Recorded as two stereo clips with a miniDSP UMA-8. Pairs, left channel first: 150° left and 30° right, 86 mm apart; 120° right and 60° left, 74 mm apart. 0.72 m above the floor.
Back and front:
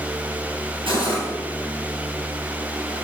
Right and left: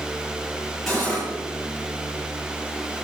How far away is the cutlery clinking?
About 8 m.